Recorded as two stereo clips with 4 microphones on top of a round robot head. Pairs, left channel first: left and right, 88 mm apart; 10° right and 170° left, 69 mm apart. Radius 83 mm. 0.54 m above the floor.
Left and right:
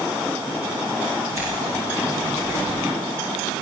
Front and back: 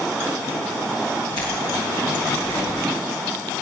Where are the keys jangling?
30° right, 9.5 m; by 2.8 s 20° right, 9 m.